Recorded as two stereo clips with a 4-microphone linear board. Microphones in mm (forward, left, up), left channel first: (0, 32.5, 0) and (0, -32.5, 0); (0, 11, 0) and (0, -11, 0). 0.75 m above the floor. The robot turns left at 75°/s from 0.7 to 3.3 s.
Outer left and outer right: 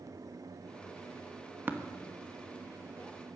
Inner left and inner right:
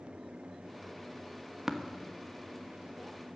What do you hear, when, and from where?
1.7 s tapping: 30° right (ahead or behind), 1.2 m